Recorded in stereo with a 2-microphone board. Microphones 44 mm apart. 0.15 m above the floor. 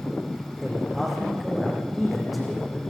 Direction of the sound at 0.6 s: Centre (ahead or behind).